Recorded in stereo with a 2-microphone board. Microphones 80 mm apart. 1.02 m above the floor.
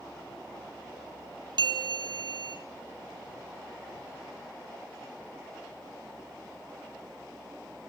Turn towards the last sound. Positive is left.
turn(degrees=-60)  # may be behind; listen again after turning